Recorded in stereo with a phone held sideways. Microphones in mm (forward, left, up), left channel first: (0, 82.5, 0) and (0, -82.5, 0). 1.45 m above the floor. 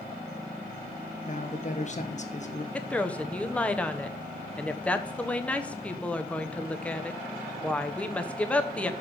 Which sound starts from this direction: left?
A man speaking, at 1.3 s.